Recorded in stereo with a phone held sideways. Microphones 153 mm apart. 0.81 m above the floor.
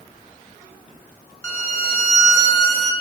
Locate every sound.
1.4 s a violin: 20° left (ahead or behind), 1.2 m